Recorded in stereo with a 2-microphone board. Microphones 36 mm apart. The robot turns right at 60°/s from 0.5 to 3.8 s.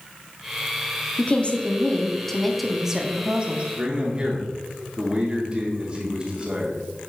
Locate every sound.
1.2 s a woman speaking: 95° left, 0.9 m; by 3.6 s 120° right, 0.9 m
3.8 s a man speaking: 20° right (ahead or behind), 0.9 m